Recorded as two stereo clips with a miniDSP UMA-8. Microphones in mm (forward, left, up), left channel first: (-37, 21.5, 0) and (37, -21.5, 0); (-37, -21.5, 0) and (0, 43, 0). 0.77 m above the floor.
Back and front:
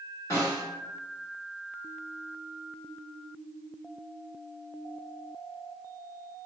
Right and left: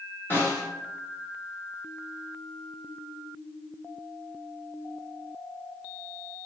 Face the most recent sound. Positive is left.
turn(degrees=-175)